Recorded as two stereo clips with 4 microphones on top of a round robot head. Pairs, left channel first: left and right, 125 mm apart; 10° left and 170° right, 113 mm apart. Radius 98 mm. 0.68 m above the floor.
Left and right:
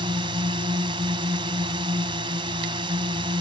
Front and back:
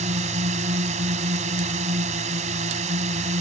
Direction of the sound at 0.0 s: 145° right.